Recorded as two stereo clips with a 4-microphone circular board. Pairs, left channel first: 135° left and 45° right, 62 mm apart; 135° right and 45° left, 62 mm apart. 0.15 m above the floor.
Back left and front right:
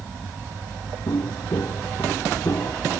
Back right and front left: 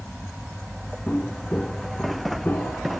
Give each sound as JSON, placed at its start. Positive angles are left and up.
{"t": 1.1, "sound": "footsteps", "azimuth_deg": 155}